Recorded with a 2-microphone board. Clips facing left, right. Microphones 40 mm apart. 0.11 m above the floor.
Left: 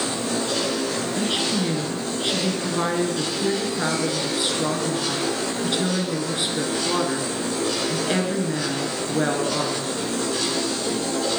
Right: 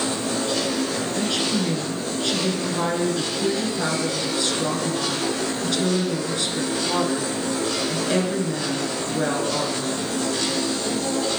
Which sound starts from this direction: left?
A woman speaking, at 1.2 s.